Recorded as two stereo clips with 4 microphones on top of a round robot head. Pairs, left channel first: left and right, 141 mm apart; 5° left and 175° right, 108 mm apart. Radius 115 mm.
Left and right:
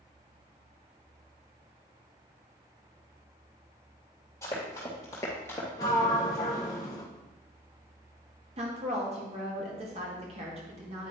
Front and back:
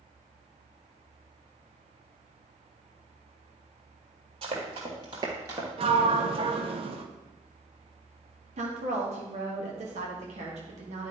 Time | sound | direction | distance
4.4 | running footsteps | 165° left | 2.5 m
5.8 | a sliding door | 160° left | 0.6 m
8.6 | a woman speaking | 145° right | 1.6 m